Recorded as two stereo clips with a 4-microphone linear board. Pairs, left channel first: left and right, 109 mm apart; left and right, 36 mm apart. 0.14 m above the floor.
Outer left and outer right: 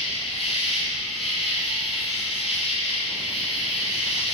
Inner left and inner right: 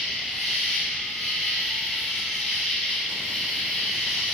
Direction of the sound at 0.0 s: 5° right (ahead or behind).